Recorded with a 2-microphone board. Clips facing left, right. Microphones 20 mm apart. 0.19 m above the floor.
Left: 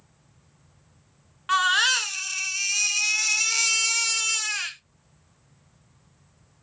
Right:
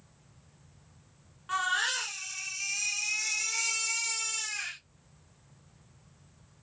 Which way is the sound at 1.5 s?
55° left (ahead or behind).